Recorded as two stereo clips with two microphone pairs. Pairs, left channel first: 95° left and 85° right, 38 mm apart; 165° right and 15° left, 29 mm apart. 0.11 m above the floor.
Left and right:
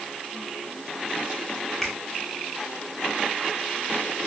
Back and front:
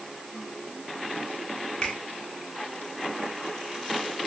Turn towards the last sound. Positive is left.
turn(degrees=165)